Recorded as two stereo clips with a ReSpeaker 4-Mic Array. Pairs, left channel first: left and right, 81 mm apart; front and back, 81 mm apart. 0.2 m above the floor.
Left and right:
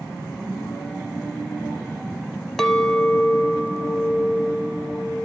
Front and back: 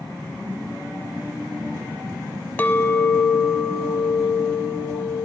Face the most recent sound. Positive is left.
turn(degrees=15)